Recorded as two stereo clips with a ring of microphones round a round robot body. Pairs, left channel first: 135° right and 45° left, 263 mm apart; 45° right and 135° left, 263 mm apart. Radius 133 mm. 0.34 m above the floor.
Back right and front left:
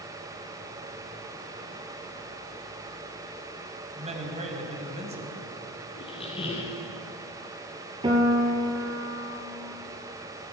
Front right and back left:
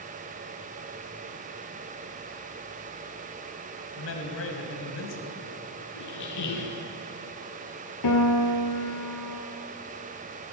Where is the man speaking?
20° right, 1.9 m.